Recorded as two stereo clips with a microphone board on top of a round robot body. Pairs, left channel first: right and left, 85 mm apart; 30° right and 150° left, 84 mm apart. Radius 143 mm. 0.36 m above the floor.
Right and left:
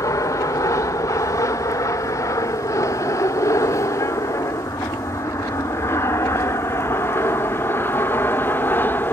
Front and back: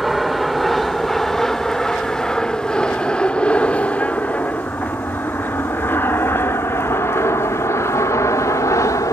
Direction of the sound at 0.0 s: 120° right.